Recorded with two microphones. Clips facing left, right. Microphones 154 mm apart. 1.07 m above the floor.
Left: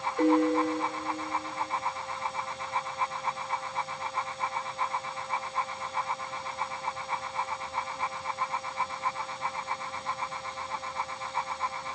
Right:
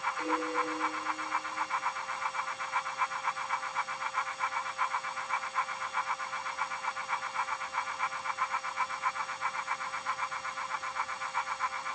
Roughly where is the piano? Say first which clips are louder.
Left 12 dB; left.